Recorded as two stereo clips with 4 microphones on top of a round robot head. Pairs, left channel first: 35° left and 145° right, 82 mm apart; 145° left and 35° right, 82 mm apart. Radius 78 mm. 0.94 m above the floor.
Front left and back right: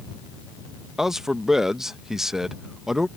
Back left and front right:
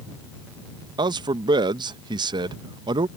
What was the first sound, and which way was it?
A man speaking, 60° right.